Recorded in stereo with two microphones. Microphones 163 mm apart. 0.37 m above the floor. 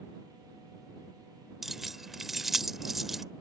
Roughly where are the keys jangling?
Centre.